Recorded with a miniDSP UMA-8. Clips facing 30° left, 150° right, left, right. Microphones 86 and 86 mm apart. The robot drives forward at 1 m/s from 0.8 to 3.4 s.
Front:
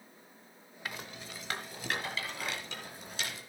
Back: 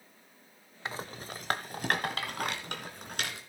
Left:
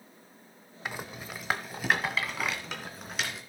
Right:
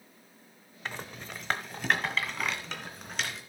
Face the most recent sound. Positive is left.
turn(degrees=180)